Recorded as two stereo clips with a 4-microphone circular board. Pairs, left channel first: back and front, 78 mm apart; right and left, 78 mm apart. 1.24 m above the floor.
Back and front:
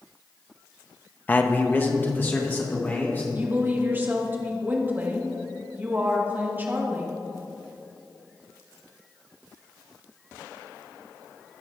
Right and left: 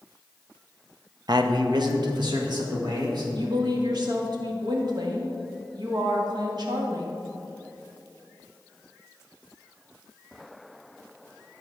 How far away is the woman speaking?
About 1.5 m.